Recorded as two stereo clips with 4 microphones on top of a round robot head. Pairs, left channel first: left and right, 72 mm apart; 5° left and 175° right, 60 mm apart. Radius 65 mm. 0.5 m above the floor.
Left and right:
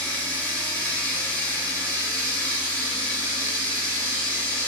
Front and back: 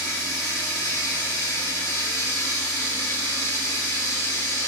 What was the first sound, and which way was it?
Running water, 20° left.